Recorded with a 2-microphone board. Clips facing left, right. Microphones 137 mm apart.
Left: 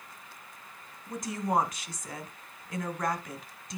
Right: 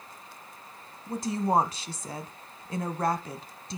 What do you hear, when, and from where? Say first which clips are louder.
1.1 s a woman speaking: right 4 dB; 30° right (ahead or behind), 1.4 m